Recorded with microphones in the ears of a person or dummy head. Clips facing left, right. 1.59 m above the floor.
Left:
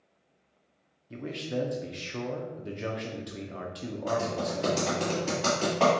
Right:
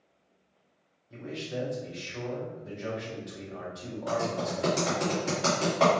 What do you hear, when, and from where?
1.1 s a man speaking: 40° left (ahead or behind), 0.6 m
4.1 s typing on a keyboard: centre (ahead or behind), 1.6 m